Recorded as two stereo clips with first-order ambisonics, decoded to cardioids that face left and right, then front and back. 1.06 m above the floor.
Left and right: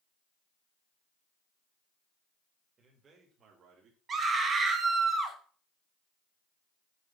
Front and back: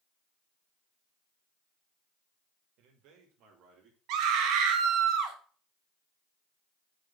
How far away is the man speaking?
About 2 m.